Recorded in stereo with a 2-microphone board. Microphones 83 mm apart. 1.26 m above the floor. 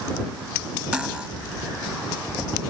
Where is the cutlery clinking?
10° right (ahead or behind).